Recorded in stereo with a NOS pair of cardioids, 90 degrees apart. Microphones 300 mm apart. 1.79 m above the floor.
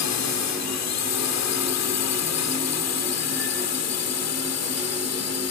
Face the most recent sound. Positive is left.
turn(degrees=60)